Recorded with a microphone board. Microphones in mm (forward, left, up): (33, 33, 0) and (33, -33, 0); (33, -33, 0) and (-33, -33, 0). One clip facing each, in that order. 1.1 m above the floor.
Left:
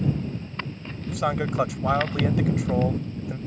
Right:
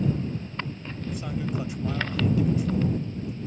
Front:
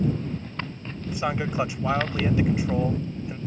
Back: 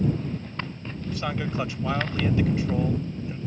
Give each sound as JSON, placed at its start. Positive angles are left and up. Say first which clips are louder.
{"t": 1.1, "sound": "a man speaking", "louder": "left 6 dB, front 2 dB", "azimuth_deg": 70}